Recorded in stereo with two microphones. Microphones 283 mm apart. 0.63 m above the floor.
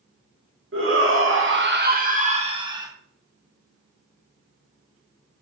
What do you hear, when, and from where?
0.7 s a shout: 45° right (ahead or behind), 1.5 m; by 2.9 s 15° right (ahead or behind), 1.7 m